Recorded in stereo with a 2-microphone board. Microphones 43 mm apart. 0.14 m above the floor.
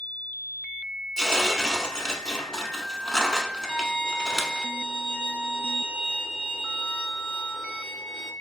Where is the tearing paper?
15° left (ahead or behind), 0.5 m.